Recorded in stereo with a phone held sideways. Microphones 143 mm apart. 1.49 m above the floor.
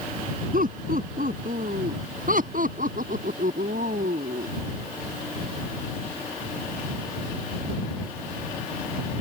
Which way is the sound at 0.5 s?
65° right (ahead or behind).